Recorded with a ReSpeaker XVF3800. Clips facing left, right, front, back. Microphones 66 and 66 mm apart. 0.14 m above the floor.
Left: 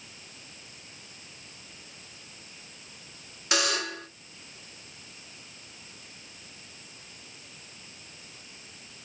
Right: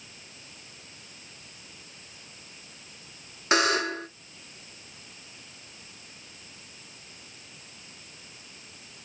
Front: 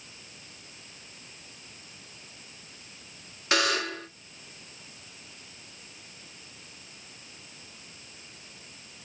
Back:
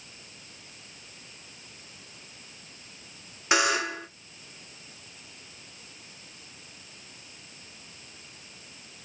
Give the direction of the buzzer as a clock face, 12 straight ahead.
4 o'clock.